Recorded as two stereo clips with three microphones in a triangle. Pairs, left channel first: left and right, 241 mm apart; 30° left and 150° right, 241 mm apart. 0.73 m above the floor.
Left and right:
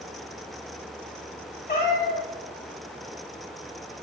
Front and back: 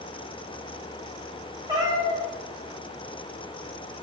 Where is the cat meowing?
140° left, 2 m.